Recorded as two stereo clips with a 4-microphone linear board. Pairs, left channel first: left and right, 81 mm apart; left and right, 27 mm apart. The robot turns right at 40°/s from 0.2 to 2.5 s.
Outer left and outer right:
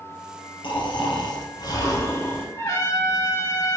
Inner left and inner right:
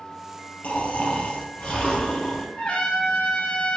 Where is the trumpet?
40° left (ahead or behind), 2 m.